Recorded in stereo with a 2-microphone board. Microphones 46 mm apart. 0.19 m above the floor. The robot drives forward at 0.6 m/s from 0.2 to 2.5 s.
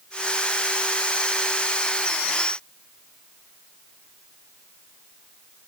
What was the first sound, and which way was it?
Only background noise.